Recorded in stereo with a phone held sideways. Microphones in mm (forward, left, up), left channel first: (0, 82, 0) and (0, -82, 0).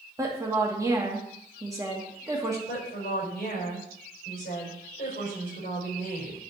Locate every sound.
0.2 s a woman speaking: 20° right (ahead or behind), 2 m
2.7 s a woman speaking: 60° left (ahead or behind), 5 m